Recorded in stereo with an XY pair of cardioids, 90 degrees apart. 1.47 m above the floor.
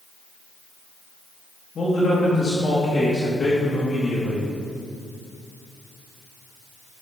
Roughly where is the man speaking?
Ahead left.